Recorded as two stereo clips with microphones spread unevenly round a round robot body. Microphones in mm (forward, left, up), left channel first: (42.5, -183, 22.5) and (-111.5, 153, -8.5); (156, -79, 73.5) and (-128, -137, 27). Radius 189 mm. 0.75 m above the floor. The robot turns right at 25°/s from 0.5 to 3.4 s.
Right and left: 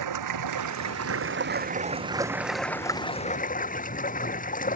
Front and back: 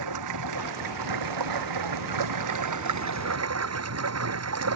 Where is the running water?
155° left; by 4.8 s 135° right.